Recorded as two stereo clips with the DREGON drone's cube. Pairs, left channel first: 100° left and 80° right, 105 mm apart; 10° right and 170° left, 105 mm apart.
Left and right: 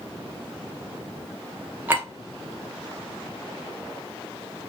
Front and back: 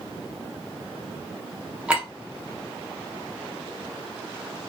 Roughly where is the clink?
Behind right.